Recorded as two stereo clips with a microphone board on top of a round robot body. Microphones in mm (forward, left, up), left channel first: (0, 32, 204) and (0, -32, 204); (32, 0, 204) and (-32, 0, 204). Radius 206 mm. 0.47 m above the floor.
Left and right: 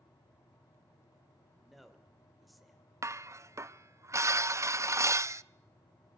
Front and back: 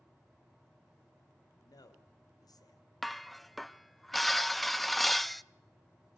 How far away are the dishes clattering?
About 0.7 m.